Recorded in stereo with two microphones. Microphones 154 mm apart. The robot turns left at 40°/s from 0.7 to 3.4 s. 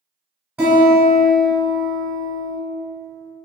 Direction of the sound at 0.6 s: 15° right.